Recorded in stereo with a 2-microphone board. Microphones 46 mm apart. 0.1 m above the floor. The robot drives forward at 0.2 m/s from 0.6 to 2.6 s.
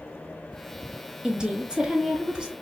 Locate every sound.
1.2 s a woman speaking: 20° right (ahead or behind), 1.1 m